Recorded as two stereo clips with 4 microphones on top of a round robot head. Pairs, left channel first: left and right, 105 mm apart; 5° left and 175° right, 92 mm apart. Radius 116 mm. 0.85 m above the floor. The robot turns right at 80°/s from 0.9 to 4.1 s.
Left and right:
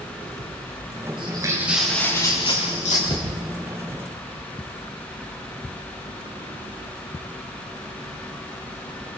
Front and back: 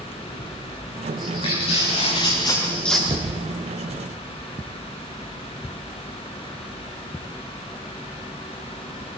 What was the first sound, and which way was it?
Footsteps, 55° right.